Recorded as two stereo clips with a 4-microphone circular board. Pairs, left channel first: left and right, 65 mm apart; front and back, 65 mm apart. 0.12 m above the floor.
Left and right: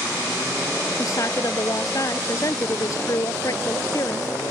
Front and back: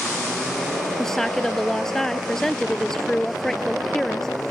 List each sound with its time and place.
1.0 s a woman speaking: 80° left